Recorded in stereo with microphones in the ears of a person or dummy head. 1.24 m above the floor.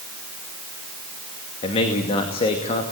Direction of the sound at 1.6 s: 35° left (ahead or behind).